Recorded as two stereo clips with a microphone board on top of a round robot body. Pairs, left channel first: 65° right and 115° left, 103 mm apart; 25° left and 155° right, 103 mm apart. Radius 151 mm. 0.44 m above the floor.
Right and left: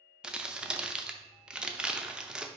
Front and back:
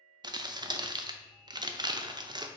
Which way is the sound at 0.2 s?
170° right.